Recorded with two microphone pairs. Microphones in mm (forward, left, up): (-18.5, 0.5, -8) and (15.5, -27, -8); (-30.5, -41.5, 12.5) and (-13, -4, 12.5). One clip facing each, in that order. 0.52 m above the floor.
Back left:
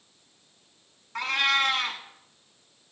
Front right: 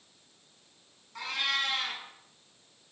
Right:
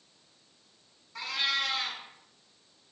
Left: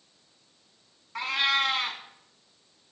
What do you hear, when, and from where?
1.1 s a cat meowing: 105° left, 0.9 m